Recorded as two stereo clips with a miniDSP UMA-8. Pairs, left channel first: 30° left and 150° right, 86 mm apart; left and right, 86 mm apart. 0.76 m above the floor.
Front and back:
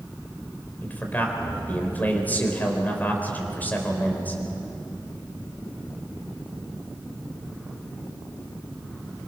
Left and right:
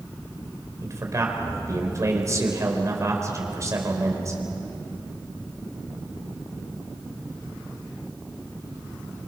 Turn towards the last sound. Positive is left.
turn(degrees=-40)